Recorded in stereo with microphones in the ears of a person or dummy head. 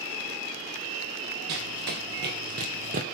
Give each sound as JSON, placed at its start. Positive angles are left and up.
{"t": 1.5, "sound": "running footsteps", "side_deg": -50, "distance_m": 3.0}